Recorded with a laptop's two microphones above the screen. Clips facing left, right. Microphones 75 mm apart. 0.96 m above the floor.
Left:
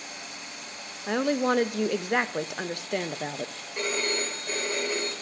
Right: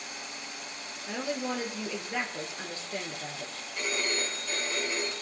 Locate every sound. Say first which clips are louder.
1.1 s a woman speaking: left 9 dB; 70° left (ahead or behind), 0.5 m
3.8 s a phone ringing: left 3 dB; 65° left (ahead or behind), 3 m